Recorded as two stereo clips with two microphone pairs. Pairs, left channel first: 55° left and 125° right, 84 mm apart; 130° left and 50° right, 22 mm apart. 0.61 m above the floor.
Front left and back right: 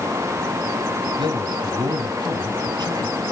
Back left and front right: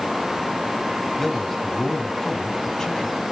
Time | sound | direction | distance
1.2 | a man speaking | 150° right | 3 m